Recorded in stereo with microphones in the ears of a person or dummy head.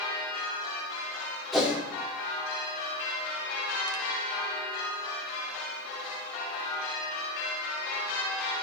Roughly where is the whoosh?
Centre.